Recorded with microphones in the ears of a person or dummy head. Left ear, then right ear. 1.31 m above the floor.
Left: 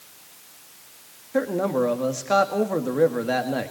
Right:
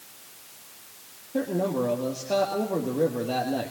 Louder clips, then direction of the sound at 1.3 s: Left 4 dB; 60° left (ahead or behind).